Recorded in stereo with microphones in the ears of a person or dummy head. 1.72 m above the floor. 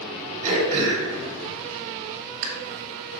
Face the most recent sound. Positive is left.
turn(degrees=-40)  # may be behind; listen again after turning